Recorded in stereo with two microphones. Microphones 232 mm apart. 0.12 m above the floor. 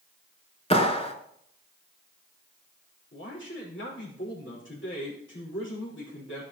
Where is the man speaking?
55° left (ahead or behind), 5.5 m.